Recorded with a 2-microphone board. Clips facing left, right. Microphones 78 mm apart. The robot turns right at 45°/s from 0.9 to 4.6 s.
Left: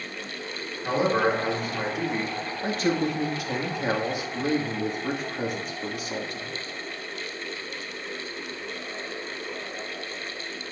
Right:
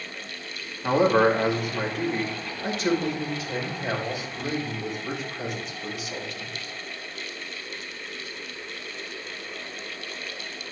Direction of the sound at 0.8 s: 40° right.